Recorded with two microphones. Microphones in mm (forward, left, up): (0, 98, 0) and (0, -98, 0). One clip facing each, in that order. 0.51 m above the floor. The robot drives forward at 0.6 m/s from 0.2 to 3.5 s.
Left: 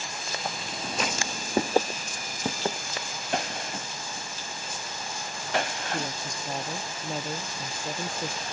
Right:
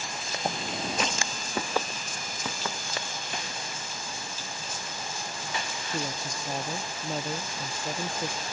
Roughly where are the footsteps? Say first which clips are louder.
Right 6 dB; right.